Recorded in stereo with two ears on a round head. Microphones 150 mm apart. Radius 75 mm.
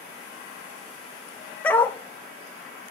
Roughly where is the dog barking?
Centre.